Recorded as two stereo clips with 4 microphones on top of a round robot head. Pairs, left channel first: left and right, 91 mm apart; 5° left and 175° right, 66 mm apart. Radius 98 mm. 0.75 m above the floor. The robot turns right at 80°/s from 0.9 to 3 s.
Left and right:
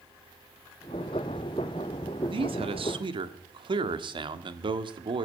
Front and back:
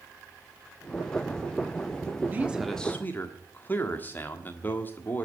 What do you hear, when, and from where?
2.3 s a man speaking: 120° right, 1.6 m; by 5.2 s 60° right, 1.6 m